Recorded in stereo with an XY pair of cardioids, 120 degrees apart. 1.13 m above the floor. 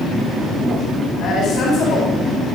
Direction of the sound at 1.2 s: 55° left.